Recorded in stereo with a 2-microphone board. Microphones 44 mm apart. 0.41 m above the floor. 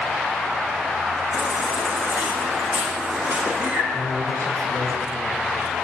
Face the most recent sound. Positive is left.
turn(degrees=-80)